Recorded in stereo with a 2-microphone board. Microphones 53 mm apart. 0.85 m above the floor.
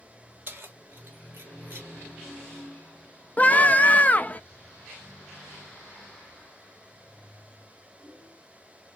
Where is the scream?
30° left (ahead or behind), 0.5 m.